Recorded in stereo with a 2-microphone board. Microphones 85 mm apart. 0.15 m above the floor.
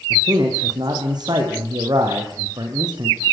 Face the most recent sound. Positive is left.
turn(degrees=-55)  # may be behind; listen again after turning